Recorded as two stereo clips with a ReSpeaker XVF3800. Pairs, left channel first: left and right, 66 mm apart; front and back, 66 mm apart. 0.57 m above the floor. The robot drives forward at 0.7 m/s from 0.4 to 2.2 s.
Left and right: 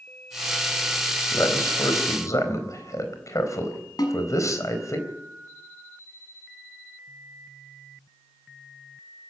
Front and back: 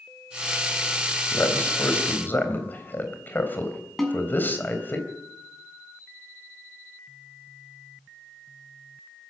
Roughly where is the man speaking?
Ahead left.